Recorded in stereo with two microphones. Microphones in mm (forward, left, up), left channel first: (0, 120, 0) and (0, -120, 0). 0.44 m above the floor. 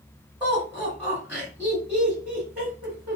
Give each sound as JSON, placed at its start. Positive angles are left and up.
{"t": 0.4, "sound": "laughter", "side_deg": -10, "distance_m": 1.7}